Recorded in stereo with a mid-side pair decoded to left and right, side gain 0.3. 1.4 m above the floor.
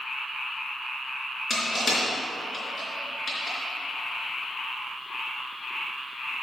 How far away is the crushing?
About 4 m.